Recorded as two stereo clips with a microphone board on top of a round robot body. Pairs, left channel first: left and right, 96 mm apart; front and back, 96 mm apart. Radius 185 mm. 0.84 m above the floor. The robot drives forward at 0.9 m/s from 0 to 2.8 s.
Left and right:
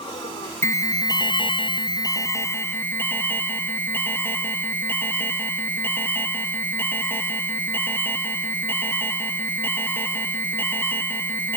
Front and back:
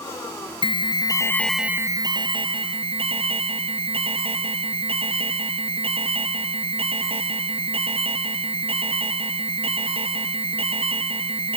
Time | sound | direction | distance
0.6 | an alarm | 30° left | 1.1 m